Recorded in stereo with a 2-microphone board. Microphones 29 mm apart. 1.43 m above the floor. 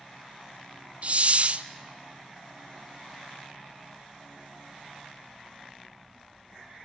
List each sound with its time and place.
1.0 s a hiss: 45° right (ahead or behind), 0.5 m